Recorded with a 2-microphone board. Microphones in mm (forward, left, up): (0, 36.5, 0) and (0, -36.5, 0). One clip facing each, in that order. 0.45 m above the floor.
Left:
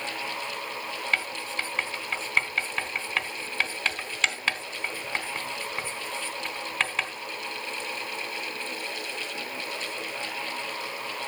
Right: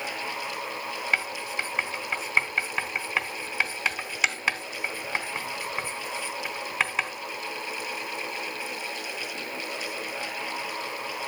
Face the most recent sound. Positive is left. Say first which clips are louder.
# right 1 dB
turn(degrees=-10)  # may be behind; listen again after turning